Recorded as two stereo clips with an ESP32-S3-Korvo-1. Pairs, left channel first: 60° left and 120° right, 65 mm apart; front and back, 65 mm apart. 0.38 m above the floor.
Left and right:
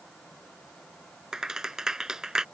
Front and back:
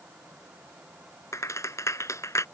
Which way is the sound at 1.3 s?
40° right.